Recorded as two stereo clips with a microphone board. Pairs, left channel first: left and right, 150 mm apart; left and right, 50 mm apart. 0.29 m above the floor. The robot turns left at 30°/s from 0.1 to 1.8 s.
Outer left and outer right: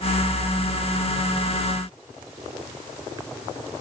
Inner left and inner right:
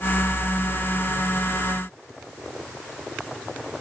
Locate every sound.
Only background noise.